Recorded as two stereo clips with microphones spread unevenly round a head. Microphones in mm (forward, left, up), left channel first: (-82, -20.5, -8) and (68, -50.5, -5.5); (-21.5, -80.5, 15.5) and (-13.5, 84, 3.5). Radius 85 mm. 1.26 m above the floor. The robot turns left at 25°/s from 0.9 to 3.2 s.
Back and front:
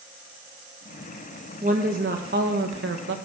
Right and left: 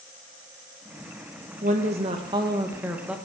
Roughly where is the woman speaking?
Ahead left.